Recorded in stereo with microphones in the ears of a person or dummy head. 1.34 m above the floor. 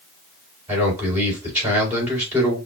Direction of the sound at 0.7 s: 10° right (ahead or behind).